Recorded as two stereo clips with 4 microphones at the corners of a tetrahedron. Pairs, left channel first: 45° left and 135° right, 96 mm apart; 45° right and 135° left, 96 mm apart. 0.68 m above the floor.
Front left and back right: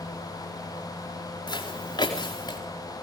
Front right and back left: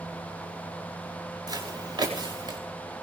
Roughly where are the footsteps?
Left.